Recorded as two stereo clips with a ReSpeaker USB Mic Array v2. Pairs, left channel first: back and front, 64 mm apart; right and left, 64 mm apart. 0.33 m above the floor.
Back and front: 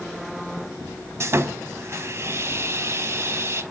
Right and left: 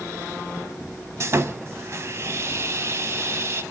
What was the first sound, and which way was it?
Sawing, 45° left.